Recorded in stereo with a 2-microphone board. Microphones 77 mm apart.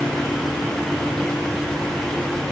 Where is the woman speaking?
I don't hear a woman speaking.